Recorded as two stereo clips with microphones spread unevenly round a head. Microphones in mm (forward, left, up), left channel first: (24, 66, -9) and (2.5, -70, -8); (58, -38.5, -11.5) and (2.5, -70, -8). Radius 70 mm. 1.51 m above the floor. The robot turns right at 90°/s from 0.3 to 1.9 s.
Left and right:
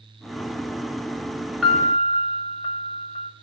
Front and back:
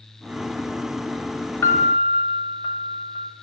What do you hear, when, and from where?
1.6 s a piano: 15° right, 1.9 m; by 3.3 s 10° left, 1.9 m